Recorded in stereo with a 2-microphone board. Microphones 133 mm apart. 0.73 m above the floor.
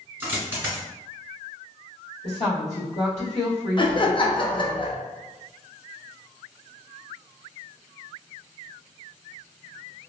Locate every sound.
0.2 s a dropped coin: 15° right (ahead or behind), 1.1 m
2.2 s a woman speaking: 70° left (ahead or behind), 1.4 m
3.8 s laughter: 40° left (ahead or behind), 0.5 m